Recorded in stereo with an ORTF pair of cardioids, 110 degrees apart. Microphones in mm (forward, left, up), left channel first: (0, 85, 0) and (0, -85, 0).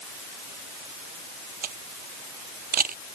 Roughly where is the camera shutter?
Ahead right.